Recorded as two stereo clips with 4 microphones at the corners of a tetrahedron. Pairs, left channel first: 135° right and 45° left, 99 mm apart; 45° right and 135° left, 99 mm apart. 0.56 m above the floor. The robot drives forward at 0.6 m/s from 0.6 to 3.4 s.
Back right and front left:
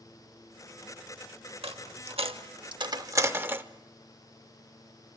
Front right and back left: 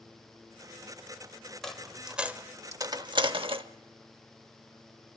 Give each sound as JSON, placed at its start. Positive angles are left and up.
{"t": 1.6, "sound": "a dropped coin", "azimuth_deg": 40, "distance_m": 1.0}